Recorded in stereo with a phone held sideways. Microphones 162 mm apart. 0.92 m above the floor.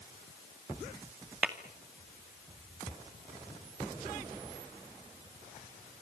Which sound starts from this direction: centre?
Tapping, at 1.4 s.